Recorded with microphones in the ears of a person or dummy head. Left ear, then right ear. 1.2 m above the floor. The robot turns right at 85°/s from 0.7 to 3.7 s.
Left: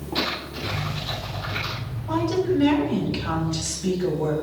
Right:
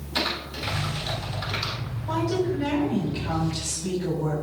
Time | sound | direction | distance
0.1 | typing on a keyboard | 40° right (ahead or behind) | 3.5 m
2.1 | a woman speaking | 20° right | 5 m